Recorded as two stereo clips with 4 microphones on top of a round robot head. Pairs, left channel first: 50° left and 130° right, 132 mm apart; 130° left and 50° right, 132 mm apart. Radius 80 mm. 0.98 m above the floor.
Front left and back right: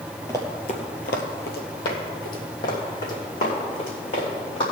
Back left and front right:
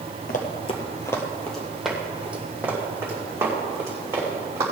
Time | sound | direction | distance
0.3 | running footsteps | 120° left | 1.4 m